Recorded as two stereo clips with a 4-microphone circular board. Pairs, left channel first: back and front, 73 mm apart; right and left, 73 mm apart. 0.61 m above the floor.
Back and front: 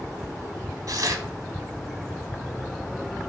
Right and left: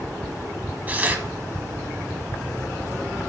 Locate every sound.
0.9 s tearing paper: 25° left, 0.9 m